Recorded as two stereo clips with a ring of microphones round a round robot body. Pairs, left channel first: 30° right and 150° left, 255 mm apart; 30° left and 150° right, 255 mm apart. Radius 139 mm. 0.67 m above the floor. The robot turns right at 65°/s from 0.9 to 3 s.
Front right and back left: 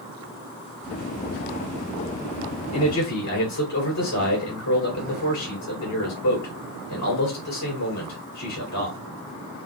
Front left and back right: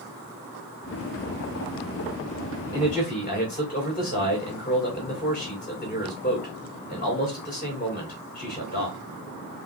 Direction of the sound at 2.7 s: 45° right.